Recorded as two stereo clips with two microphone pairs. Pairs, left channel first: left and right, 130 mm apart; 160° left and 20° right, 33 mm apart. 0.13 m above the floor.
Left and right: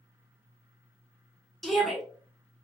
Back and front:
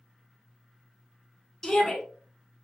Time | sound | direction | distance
1.6 | a shout | 175° left | 1.0 m